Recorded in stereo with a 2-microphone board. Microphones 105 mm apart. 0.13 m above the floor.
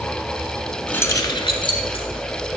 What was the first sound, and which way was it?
Keys jangling, 15° left (ahead or behind).